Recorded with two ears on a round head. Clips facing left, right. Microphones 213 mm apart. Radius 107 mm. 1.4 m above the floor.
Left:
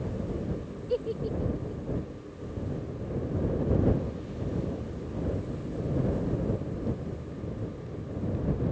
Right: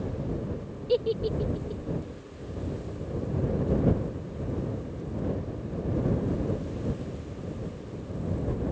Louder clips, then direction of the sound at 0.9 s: Right 4 dB; 50° right (ahead or behind).